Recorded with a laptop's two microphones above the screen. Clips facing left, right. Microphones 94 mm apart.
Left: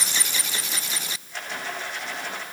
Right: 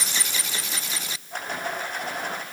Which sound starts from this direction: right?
A rattle, at 1.3 s.